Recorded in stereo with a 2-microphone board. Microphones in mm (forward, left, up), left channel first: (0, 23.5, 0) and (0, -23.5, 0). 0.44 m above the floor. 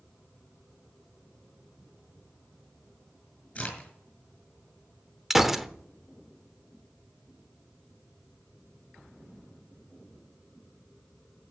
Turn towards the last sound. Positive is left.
turn(degrees=-5)  # may be behind; listen again after turning